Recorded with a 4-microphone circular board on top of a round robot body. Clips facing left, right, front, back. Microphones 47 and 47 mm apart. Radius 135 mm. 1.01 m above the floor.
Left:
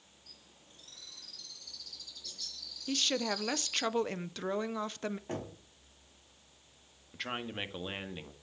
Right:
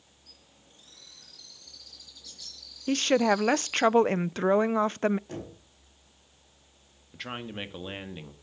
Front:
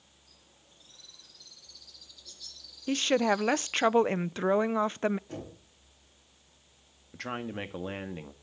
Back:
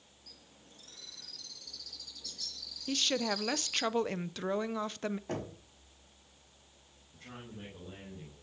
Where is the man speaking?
5° right, 2.0 m.